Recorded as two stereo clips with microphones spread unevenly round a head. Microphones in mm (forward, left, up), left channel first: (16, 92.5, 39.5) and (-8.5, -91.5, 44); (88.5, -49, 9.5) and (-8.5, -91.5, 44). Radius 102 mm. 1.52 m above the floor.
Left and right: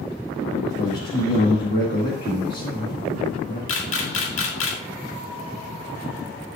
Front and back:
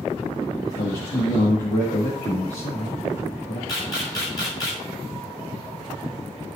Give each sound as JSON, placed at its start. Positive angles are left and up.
{"t": 0.8, "sound": "a man speaking", "azimuth_deg": 40, "distance_m": 2.0}
{"t": 3.7, "sound": "a camera shutter", "azimuth_deg": 90, "distance_m": 1.8}